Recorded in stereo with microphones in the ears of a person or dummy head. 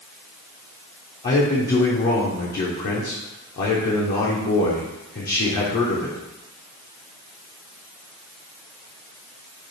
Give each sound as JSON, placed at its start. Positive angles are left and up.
{"t": 1.2, "sound": "a man speaking", "side_deg": 45, "distance_m": 0.8}